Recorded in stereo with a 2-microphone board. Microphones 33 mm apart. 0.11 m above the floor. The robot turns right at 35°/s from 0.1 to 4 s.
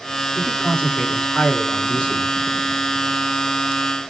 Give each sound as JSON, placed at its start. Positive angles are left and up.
{"t": 0.3, "sound": "a man speaking", "azimuth_deg": 70, "distance_m": 2.0}